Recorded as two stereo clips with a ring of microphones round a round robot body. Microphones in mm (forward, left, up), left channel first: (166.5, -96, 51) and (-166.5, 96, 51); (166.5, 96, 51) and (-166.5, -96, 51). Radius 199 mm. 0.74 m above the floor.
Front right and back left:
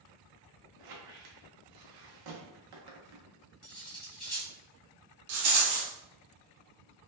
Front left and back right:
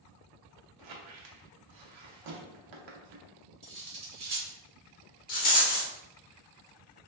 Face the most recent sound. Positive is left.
turn(degrees=100)